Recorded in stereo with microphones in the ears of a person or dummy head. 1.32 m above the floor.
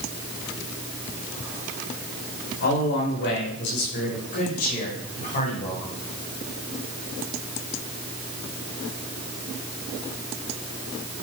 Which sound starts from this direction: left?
A man speaking, at 2.6 s.